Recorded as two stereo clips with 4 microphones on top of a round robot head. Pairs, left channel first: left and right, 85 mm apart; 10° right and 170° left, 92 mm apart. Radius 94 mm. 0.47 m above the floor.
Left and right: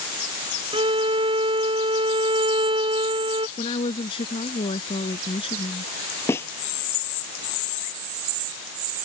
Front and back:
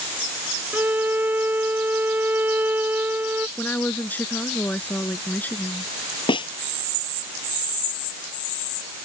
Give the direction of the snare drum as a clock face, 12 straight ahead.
11 o'clock.